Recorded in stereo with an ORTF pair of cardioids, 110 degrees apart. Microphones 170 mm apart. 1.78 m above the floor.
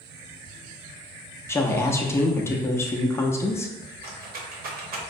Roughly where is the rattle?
Ahead right.